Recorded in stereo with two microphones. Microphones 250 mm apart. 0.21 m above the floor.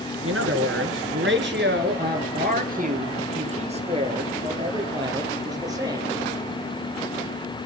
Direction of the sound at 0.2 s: 65° right (ahead or behind).